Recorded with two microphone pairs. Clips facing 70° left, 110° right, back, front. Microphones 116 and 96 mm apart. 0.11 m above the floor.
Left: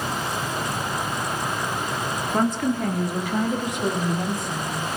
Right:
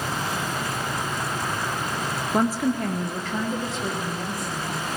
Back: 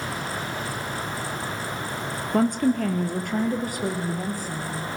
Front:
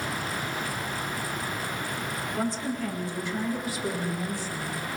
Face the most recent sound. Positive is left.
turn(degrees=135)